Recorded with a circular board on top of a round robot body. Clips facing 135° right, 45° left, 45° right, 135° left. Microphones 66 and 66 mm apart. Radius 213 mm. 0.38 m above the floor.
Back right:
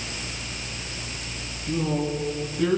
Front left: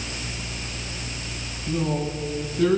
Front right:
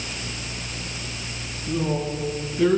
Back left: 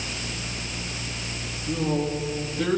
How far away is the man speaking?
About 4.5 m.